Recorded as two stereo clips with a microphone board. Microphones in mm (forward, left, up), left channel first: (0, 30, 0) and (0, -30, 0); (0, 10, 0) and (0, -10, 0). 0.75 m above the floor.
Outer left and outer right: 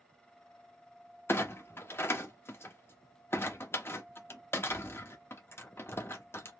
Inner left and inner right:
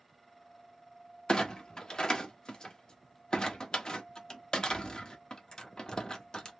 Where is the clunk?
40° left (ahead or behind), 0.9 m.